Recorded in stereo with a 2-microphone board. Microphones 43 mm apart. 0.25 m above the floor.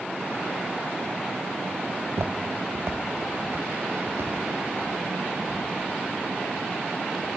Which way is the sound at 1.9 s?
60° right (ahead or behind).